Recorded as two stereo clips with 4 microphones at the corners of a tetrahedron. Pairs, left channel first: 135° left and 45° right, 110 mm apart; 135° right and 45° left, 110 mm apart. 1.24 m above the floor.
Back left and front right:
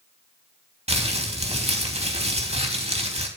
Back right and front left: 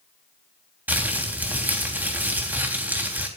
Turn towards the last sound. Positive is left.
turn(degrees=-30)